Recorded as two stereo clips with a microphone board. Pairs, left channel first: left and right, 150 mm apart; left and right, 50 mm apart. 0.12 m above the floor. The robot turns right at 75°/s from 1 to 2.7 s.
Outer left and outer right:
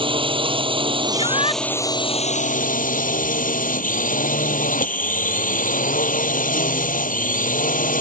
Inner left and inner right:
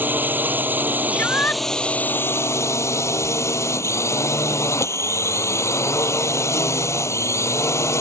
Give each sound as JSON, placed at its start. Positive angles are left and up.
{"t": 0.0, "sound": "a drone", "azimuth_deg": -40}
{"t": 1.1, "sound": "a shout", "azimuth_deg": 85}